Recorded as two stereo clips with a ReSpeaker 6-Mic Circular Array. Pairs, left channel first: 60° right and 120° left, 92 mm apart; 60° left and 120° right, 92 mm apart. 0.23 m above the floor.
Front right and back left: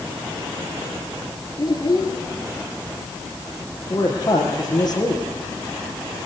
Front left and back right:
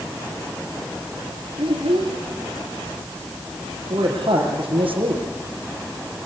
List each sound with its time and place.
1.6 s a child speaking: 100° right, 4 m
3.9 s a man speaking: 100° right, 5.5 m